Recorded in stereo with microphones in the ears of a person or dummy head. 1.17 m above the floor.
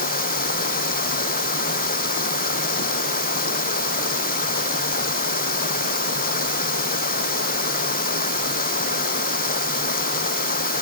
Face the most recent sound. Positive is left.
turn(degrees=45)  # may be behind; listen again after turning